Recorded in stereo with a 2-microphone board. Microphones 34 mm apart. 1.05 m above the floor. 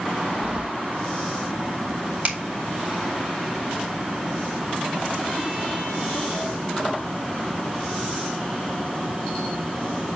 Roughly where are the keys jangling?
Right.